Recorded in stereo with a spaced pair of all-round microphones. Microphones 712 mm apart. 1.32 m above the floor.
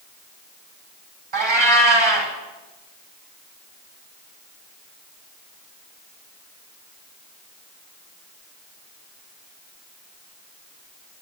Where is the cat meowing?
45° right (ahead or behind), 2.5 m.